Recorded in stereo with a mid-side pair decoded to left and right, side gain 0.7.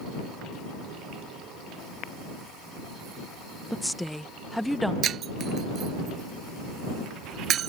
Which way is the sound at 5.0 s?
40° right.